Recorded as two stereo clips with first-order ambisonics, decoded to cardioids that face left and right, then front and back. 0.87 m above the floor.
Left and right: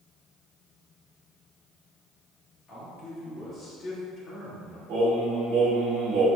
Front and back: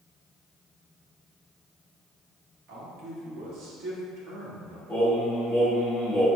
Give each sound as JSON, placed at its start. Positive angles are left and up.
{"t": 2.7, "sound": "a man speaking", "azimuth_deg": 160, "distance_m": 1.3}
{"t": 4.9, "sound": "singing", "azimuth_deg": -95, "distance_m": 1.8}